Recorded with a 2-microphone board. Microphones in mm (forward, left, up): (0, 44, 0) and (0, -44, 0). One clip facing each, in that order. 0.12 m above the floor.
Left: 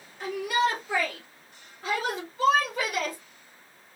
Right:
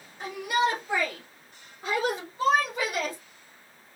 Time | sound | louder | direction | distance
0.2 | a shout | even | 20° right (ahead or behind) | 2.0 m